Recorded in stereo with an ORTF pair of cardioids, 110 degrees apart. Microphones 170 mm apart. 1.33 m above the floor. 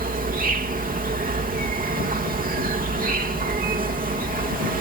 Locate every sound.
0.0 s an insect: 60° right